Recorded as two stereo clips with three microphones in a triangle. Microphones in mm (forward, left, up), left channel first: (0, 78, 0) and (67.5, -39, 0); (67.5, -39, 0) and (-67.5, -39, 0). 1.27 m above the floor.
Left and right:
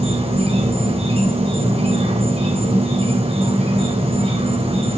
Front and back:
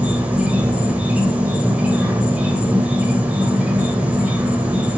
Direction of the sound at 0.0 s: 100° right.